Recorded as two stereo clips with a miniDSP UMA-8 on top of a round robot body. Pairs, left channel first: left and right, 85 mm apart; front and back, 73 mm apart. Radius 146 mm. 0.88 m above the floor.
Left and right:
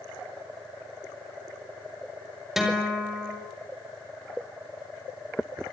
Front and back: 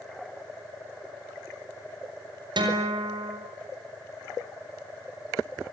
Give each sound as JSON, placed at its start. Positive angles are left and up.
{"t": 2.6, "sound": "a guitar", "azimuth_deg": -175, "distance_m": 6.0}